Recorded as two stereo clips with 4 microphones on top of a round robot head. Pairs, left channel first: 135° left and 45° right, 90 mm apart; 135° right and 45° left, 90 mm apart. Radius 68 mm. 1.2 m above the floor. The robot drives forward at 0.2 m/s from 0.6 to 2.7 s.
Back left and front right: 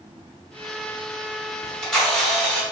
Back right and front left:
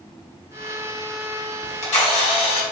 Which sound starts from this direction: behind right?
A camera shutter, at 1.6 s.